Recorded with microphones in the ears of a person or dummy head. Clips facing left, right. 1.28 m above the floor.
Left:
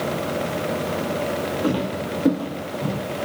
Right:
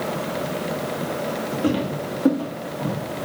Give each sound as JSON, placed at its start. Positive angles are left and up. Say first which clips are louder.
{"t": 1.6, "sound": "footsteps", "louder": "right 3 dB", "side_deg": -15, "distance_m": 2.5}